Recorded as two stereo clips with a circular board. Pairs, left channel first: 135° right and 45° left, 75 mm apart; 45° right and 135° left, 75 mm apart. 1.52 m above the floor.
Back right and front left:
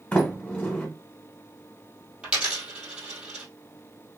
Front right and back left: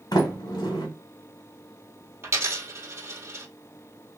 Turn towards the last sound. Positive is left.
turn(degrees=115)